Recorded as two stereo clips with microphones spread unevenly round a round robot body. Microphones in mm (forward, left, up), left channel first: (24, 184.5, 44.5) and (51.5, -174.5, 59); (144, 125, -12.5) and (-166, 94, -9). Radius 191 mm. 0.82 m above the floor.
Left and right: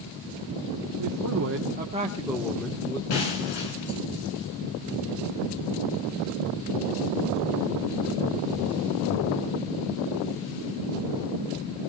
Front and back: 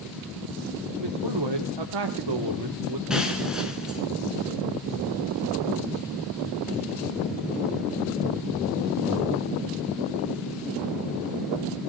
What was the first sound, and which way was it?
A man speaking, 130° right.